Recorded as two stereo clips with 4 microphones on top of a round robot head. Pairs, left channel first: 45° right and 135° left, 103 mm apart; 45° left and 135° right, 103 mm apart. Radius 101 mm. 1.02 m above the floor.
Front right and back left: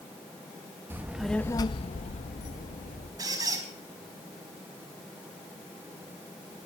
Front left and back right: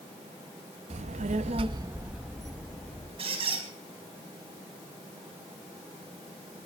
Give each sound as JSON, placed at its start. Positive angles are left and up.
{"t": 0.9, "sound": "a child speaking", "azimuth_deg": -150, "distance_m": 0.7}
{"t": 3.2, "sound": "a squeak", "azimuth_deg": -165, "distance_m": 4.0}